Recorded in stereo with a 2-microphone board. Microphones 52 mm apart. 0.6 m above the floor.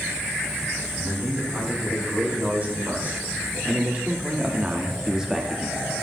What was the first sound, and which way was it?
A man speaking, 30° right (ahead or behind).